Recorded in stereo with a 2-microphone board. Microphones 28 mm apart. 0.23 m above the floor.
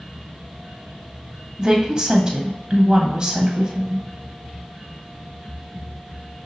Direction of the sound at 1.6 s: 25° right (ahead or behind).